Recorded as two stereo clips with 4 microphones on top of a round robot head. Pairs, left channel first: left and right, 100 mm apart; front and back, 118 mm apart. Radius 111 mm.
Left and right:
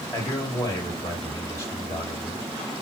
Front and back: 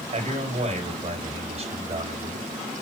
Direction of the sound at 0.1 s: 155° left.